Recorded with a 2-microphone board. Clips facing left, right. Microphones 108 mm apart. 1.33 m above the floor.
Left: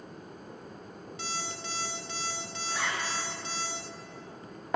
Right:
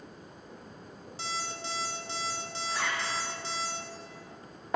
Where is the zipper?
Centre (ahead or behind), 1.0 m.